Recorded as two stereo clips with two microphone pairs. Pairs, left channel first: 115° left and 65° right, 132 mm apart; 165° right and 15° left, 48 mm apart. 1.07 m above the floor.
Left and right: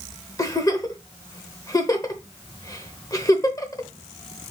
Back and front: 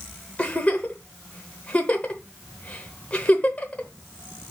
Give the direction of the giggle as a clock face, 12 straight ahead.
7 o'clock.